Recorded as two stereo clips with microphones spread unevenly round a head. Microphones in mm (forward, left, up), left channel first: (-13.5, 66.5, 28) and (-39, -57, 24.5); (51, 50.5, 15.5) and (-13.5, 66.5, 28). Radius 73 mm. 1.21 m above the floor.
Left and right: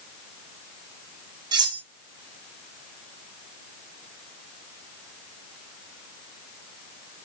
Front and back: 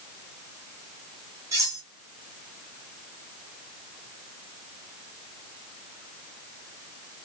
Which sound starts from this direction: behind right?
Cutlery clinking, at 1.5 s.